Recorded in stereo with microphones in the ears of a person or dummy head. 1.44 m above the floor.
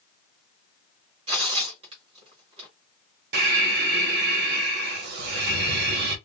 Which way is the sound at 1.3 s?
30° right (ahead or behind).